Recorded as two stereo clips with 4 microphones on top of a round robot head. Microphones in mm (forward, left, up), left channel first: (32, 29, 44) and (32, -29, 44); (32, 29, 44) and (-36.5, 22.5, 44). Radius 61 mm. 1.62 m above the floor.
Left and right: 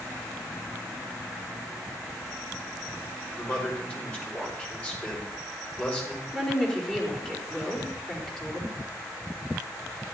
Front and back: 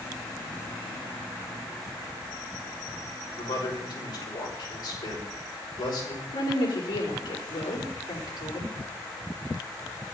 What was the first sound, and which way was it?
A man speaking, 25° left.